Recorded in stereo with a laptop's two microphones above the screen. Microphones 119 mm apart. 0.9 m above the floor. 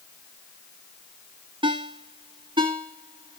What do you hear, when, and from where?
1.6 s a ringtone: 45° right (ahead or behind), 0.9 m